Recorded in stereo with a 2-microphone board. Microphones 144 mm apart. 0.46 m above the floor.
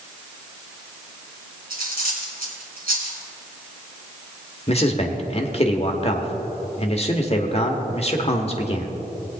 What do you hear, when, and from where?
1.7 s cutlery clinking: 80° right, 2.5 m
4.7 s a man speaking: 40° left (ahead or behind), 1.2 m